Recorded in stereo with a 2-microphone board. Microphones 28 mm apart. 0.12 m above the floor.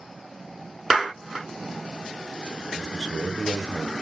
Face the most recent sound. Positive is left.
turn(degrees=-20)  # may be behind; listen again after turning